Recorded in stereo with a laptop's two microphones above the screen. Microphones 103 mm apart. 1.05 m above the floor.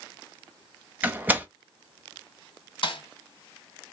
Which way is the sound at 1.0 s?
15° right (ahead or behind).